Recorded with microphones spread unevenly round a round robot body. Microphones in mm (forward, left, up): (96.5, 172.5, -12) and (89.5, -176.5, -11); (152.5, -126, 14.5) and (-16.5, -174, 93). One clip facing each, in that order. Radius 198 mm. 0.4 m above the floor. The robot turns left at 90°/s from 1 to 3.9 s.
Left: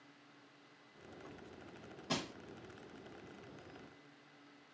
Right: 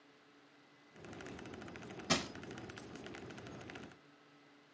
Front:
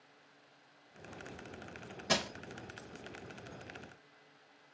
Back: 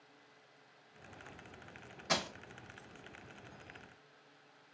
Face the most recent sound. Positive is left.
turn(degrees=160)